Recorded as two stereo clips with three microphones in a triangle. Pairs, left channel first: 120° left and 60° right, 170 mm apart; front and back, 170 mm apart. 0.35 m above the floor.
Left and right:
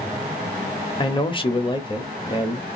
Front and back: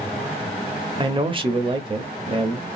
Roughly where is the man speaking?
Behind left.